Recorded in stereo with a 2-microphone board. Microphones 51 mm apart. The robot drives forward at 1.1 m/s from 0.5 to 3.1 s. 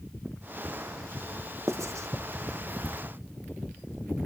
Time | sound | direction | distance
1.7 | writing | 60° right (ahead or behind) | 1.4 m